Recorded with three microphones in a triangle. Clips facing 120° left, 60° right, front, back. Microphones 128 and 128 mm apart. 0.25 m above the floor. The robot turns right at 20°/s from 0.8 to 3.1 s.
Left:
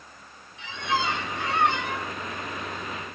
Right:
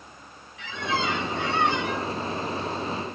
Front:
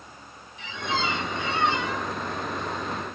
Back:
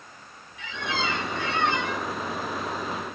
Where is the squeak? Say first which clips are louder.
Even, front 1 dB; 60° left, 1.9 m; by 2.1 s 85° left, 1.9 m.